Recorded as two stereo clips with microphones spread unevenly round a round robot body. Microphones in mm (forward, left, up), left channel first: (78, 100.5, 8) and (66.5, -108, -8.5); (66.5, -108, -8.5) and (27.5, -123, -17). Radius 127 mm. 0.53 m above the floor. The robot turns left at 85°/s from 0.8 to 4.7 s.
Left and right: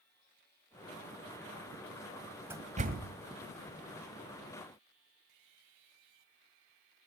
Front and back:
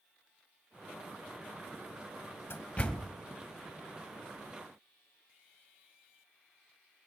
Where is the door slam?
15° right, 2 m; by 3.1 s 65° right, 2 m.